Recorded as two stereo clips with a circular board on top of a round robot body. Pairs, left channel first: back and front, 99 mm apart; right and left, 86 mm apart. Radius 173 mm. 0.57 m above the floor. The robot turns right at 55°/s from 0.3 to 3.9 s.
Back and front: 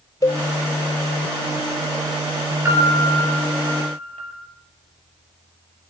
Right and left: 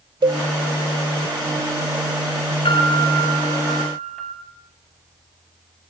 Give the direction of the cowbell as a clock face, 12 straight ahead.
8 o'clock.